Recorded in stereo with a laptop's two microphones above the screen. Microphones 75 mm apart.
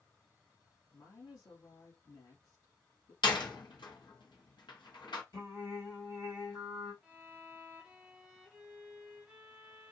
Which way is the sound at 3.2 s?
85° left.